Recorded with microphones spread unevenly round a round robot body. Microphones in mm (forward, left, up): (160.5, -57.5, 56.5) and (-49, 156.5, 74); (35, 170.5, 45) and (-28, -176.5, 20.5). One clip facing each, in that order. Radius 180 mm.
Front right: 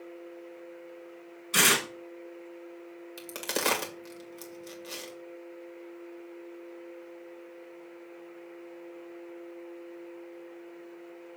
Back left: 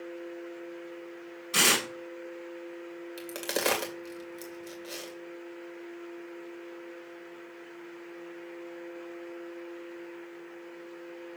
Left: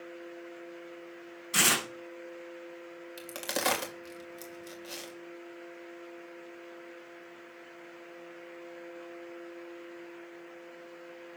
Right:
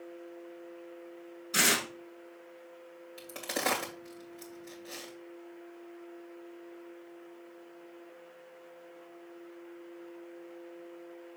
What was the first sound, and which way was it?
Tearing paper, 15° left.